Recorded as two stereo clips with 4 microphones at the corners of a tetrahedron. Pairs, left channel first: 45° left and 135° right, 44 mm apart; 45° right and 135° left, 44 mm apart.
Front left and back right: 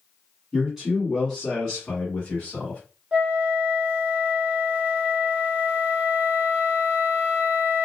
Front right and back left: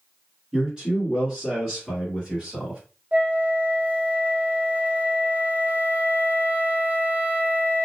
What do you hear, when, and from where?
0.5 s a man speaking: 170° left, 1.6 m; by 2.8 s 80° left, 1.8 m
3.1 s a flute: 170° left, 0.8 m